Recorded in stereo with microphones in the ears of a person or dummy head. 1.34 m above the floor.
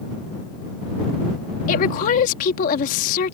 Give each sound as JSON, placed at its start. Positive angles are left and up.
{"t": 1.7, "sound": "a woman speaking", "side_deg": 50}